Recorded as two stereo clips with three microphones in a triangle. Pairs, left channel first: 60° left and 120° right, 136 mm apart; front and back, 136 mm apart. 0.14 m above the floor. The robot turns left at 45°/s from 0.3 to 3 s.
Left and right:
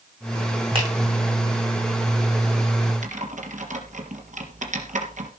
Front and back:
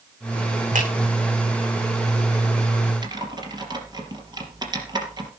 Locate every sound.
0.8 s a finger snap: 170° right, 8.5 m; by 0.9 s 175° right, 8.5 m
3.0 s typing on a keyboard: 125° right, 3.5 m